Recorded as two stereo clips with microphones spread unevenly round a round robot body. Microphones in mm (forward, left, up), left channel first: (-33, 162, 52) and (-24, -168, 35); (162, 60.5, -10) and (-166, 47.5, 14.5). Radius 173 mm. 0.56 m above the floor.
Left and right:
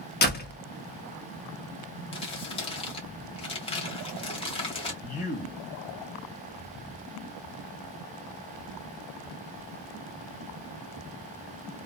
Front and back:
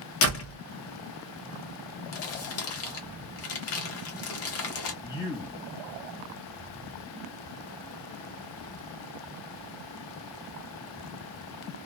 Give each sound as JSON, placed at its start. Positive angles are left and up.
{"t": 0.2, "sound": "a door slam", "azimuth_deg": 35, "distance_m": 0.7}
{"t": 2.1, "sound": "crumpling", "azimuth_deg": 20, "distance_m": 0.8}
{"t": 5.0, "sound": "a man speaking", "azimuth_deg": 50, "distance_m": 0.7}